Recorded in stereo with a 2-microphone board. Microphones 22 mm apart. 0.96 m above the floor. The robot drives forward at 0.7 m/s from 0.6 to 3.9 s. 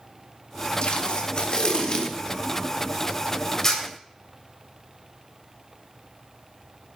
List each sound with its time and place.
0.8 s tape being pulled: 55° left (ahead or behind), 1.5 m; by 3.8 s 25° left (ahead or behind), 3 m